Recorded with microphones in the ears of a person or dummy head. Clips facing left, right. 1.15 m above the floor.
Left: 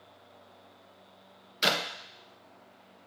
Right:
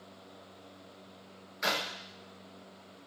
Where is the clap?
55° left (ahead or behind), 0.9 m.